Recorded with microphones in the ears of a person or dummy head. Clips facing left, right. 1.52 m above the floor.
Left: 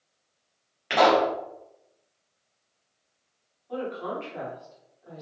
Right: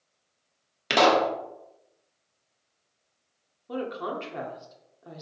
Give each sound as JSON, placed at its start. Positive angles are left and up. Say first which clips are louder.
{"t": 0.9, "sound": "a pop", "louder": "left 1 dB", "side_deg": -50, "distance_m": 0.7}
{"t": 3.7, "sound": "a woman speaking", "louder": "even", "side_deg": -60, "distance_m": 0.8}